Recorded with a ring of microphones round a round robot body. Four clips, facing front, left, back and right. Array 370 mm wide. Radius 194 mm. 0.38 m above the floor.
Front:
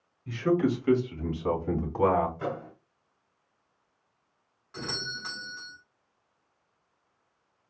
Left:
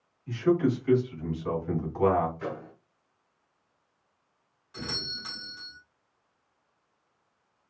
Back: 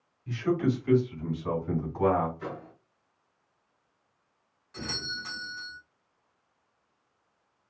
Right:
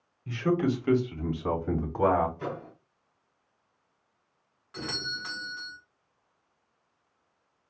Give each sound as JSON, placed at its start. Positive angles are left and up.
{"t": 0.3, "sound": "a man speaking", "azimuth_deg": -70, "distance_m": 2.0}
{"t": 2.4, "sound": "a microwave", "azimuth_deg": -15, "distance_m": 1.6}
{"t": 4.7, "sound": "a doorbell", "azimuth_deg": -45, "distance_m": 1.9}